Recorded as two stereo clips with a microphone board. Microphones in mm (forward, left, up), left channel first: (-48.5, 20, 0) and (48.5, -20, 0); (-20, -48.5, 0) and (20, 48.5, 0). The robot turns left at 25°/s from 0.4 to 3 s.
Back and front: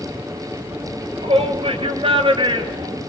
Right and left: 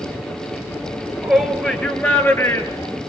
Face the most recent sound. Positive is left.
turn(degrees=-65)